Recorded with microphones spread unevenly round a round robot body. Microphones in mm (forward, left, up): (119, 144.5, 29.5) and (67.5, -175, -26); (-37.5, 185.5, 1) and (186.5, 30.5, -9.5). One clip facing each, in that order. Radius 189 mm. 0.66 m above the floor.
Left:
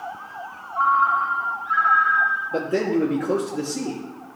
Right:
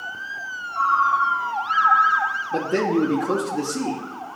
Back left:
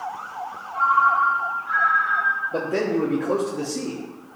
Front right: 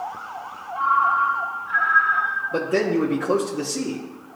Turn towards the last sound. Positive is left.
turn(degrees=-90)